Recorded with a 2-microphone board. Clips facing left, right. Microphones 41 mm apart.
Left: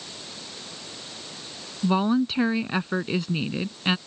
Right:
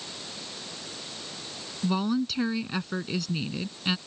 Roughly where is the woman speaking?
Left.